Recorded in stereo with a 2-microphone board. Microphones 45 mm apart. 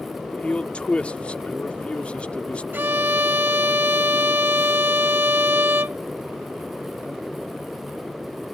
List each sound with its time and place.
0.3 s a man speaking: 25° left (ahead or behind)
2.7 s a violin: 50° right (ahead or behind)